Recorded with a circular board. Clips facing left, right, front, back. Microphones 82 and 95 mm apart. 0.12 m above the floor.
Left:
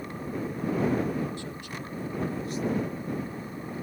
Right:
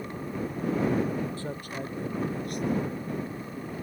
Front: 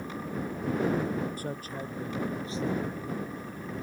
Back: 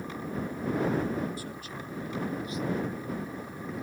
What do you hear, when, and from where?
1.4 s a man speaking: 40° right; by 3.2 s 65° right